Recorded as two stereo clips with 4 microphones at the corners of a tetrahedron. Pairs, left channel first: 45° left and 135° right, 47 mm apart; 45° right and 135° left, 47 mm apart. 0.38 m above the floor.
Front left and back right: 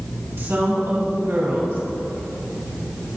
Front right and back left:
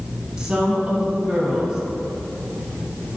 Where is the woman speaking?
155° right, 3 m.